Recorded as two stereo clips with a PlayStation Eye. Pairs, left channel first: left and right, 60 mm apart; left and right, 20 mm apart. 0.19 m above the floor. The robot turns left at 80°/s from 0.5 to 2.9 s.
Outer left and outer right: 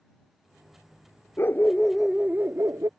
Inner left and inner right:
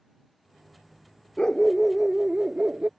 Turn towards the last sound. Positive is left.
turn(degrees=-75)